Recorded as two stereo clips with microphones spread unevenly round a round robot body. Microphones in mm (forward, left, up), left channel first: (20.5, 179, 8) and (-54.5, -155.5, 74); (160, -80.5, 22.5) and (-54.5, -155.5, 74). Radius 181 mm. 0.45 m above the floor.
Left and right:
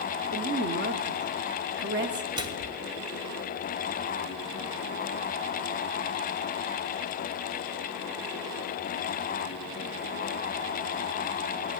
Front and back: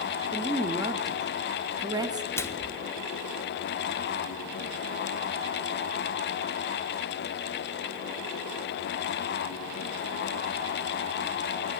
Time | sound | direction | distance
0.3 | a woman speaking | 80° right | 0.8 m
2.4 | a microwave | 15° right | 0.7 m